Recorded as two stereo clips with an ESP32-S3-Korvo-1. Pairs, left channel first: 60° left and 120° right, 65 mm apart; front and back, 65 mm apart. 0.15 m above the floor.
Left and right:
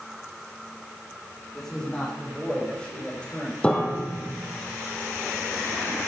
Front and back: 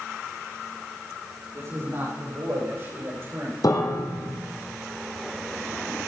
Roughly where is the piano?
Ahead.